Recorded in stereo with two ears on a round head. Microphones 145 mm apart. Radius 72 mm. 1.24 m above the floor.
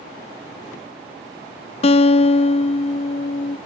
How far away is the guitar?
About 0.5 m.